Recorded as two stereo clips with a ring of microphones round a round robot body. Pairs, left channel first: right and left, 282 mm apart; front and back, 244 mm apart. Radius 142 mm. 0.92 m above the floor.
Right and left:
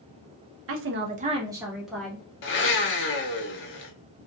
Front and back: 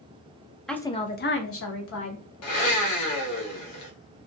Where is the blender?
40° right, 0.6 m.